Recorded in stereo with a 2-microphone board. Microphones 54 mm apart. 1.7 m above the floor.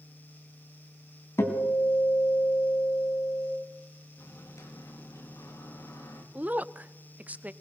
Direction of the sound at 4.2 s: 60° left (ahead or behind).